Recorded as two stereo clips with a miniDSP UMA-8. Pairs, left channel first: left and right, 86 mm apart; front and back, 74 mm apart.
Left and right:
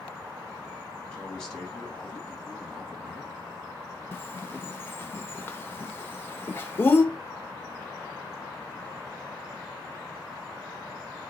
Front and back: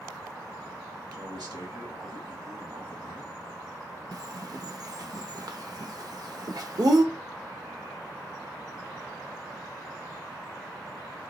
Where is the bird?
150° left, 0.5 m.